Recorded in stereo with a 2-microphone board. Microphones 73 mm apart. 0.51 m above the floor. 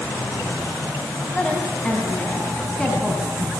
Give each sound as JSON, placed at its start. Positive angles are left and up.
{"t": 1.3, "sound": "a woman speaking", "side_deg": 15, "distance_m": 4.0}